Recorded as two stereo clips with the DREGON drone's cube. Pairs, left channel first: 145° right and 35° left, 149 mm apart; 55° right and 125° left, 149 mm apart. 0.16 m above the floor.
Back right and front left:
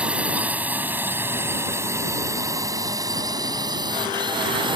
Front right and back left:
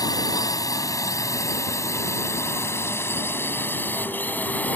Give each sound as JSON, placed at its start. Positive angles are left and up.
{"t": 0.0, "sound": "a drone", "azimuth_deg": -40}